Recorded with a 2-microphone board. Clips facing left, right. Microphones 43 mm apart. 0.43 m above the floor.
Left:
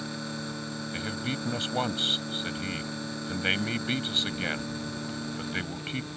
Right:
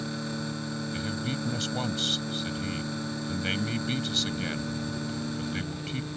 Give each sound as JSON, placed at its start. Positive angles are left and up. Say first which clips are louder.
{"t": 0.9, "sound": "a man speaking", "louder": "left 1 dB", "side_deg": 30}